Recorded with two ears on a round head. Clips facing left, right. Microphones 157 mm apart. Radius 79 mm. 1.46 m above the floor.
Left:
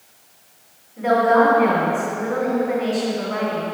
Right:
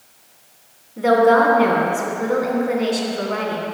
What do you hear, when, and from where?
1.0 s a woman speaking: 50° right (ahead or behind), 3 m